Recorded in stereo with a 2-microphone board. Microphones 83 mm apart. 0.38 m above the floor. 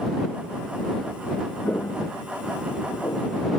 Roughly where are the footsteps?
Left.